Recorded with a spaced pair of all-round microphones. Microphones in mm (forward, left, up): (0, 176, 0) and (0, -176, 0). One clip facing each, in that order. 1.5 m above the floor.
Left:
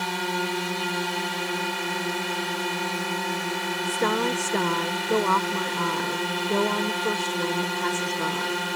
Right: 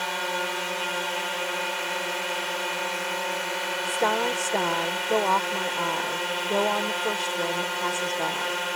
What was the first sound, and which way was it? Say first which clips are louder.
A drone: left 3 dB; 50° left (ahead or behind).